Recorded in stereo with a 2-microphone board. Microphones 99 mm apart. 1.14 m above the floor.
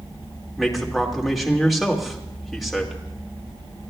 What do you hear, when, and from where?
0.6 s a man speaking: centre (ahead or behind), 1.9 m